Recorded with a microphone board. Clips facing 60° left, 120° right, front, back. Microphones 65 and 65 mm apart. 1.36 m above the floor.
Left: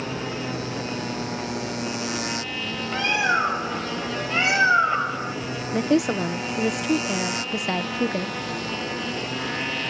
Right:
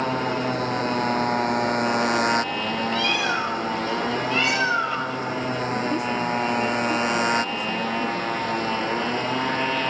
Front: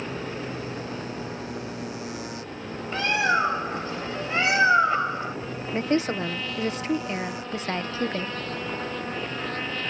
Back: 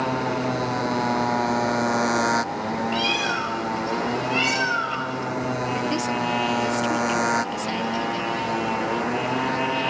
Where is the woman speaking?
60° left.